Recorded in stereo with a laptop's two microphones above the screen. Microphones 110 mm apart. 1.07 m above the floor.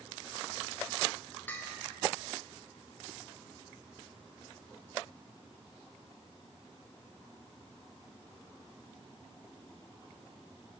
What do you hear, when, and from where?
1.5 s a bell: 15° left (ahead or behind), 1.1 m